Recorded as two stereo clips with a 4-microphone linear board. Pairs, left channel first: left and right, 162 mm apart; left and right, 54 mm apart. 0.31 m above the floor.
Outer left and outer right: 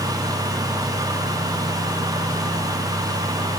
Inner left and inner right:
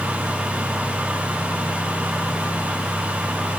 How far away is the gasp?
No gasp in this recording.